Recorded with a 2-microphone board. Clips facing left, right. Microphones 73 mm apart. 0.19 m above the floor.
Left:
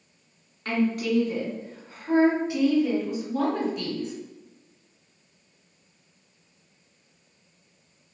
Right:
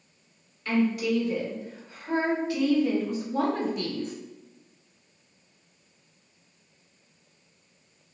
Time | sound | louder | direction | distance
0.7 | a woman speaking | even | 55° left (ahead or behind) | 1.7 m